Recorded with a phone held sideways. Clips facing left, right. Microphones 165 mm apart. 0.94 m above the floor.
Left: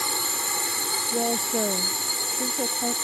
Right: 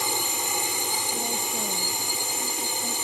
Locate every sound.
0.0 s a drone: 15° right (ahead or behind)
1.1 s a woman speaking: 75° left (ahead or behind)